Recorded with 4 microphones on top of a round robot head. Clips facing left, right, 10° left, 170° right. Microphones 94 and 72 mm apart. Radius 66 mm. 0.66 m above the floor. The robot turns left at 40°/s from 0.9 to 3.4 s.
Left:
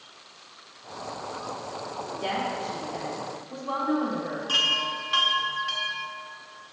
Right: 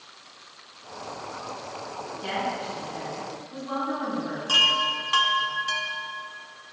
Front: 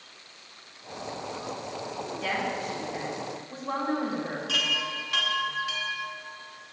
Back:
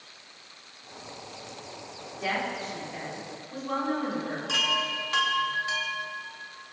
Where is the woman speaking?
110° left, 4 m; by 4.4 s 65° left, 4 m.